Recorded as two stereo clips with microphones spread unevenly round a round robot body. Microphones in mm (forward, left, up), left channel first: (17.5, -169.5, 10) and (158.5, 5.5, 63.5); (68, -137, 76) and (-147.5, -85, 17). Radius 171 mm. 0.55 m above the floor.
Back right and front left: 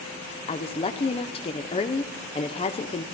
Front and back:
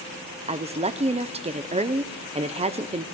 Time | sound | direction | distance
0.5 | a woman speaking | 165° right | 0.9 m